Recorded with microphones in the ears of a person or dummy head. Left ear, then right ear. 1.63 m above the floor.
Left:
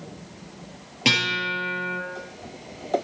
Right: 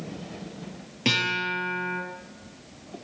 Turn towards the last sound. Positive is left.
turn(degrees=15)  # may be behind; listen again after turning